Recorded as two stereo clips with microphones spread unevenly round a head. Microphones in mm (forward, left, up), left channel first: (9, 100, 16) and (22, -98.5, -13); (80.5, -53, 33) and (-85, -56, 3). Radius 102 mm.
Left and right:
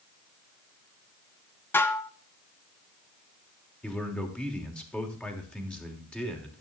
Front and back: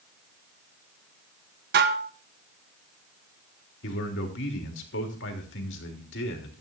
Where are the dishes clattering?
160° left, 0.9 m.